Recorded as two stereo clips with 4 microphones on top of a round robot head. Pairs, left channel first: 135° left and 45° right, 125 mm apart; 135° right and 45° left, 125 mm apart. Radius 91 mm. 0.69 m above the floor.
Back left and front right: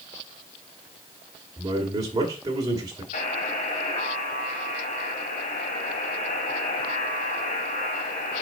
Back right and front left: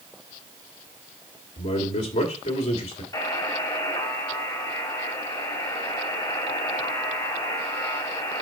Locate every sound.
1.6 s a man speaking: 105° right, 2.5 m
3.1 s a buzzer: 160° left, 3 m